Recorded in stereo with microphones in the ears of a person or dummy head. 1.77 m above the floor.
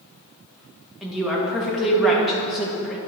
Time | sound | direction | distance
1.0 | a woman speaking | centre (ahead or behind) | 1.3 m